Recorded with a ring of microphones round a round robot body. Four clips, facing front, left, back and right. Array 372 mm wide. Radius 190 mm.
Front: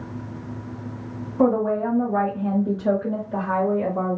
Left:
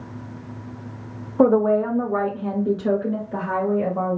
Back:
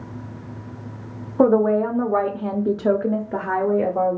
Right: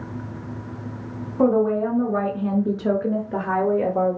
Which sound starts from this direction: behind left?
A woman speaking, at 1.4 s.